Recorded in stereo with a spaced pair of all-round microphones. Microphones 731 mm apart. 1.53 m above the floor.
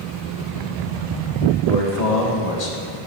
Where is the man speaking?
60° left (ahead or behind), 2 m.